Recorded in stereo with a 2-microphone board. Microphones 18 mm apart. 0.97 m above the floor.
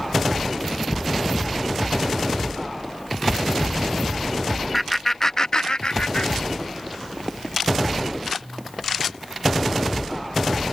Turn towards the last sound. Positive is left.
turn(degrees=80)